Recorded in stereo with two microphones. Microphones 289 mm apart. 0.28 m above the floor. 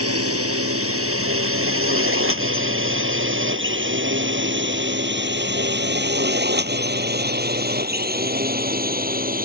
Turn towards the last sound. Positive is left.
turn(degrees=-30)  # may be behind; listen again after turning